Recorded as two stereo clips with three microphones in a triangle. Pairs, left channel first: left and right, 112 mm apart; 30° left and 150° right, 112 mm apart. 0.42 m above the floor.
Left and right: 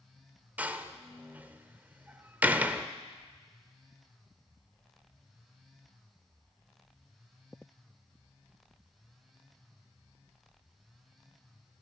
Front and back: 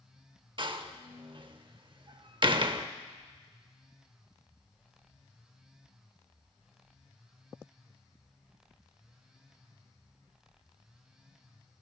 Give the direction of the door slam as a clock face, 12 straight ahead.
5 o'clock.